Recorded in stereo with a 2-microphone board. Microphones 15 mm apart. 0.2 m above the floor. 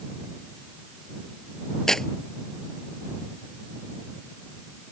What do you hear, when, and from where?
1.9 s tearing paper: 35° left (ahead or behind)